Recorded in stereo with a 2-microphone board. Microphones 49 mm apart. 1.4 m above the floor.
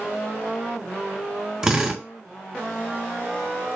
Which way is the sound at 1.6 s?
20° right (ahead or behind).